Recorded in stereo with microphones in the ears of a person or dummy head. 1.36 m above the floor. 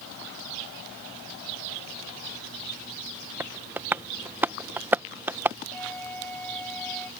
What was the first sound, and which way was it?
Tapping, 10° right (ahead or behind).